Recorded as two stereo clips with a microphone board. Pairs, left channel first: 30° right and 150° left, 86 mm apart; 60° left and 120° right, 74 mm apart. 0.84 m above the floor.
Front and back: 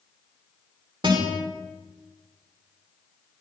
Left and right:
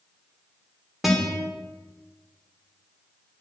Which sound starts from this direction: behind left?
A guitar, at 1.0 s.